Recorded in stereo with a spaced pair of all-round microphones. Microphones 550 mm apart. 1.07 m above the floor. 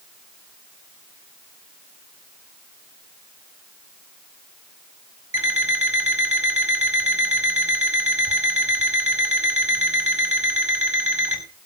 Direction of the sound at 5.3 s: 45° right (ahead or behind).